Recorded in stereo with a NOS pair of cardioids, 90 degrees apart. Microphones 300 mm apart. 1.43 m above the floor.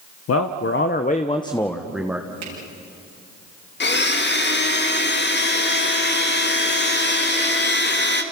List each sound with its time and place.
0.3 s a man speaking: 55° left, 1.3 m; by 2.3 s 10° right, 1.6 m
2.4 s a finger snap: 70° right, 8.5 m
3.8 s a blender: 35° left, 2.5 m